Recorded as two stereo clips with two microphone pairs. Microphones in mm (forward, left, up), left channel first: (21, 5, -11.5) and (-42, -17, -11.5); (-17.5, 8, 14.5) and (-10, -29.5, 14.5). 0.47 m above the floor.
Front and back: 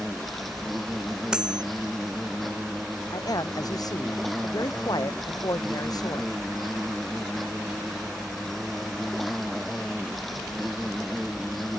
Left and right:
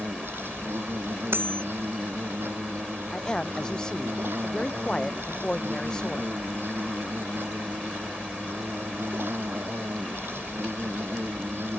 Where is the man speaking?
35° left.